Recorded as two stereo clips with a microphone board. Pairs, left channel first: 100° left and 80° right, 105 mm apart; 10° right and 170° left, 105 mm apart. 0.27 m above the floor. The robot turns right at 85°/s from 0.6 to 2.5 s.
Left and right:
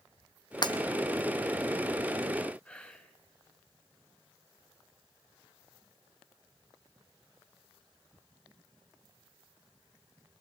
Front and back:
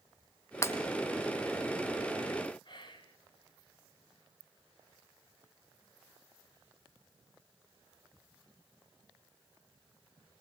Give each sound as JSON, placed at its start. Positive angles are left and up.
{"t": 0.6, "sound": "breaking glass", "azimuth_deg": 50, "distance_m": 1.3}
{"t": 2.6, "sound": "whispering", "azimuth_deg": 20, "distance_m": 2.5}